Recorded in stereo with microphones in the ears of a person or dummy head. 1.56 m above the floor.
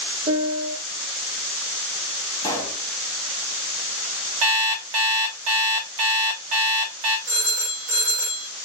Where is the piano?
45° right (ahead or behind), 1.0 m.